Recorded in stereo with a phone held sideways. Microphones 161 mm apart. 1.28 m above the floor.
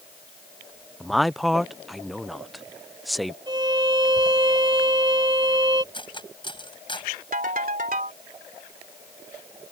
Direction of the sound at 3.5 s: 30° right (ahead or behind).